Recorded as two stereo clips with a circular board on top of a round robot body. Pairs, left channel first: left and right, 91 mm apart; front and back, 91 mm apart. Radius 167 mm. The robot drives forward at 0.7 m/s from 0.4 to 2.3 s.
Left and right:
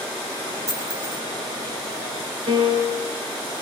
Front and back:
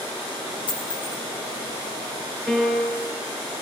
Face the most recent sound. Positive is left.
turn(degrees=-95)